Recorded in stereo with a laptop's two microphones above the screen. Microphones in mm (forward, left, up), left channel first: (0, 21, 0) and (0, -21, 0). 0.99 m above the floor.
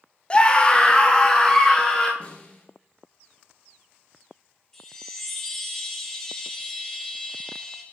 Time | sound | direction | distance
0.3 | a scream | 25° left (ahead or behind) | 0.7 m
2.2 | a snare drum | 40° left (ahead or behind) | 2 m
4.7 | a chime | 10° left (ahead or behind) | 2.5 m